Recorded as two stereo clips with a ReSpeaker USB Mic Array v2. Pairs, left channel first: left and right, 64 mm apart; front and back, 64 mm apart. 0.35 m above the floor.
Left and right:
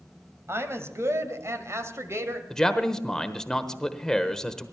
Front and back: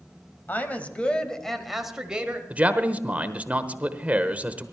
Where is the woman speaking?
55° right, 1.8 m; by 2.4 s 115° right, 1.6 m.